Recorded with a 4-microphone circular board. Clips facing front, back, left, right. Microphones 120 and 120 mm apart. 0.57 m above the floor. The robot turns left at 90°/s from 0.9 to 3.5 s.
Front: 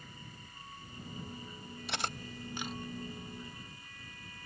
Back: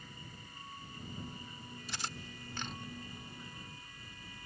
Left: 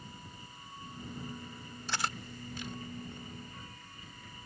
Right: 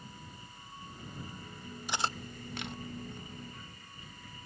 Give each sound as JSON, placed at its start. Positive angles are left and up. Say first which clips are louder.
{"t": 1.9, "sound": "cutlery clinking", "louder": "front 6 dB, right 2 dB", "azimuth_deg": -15}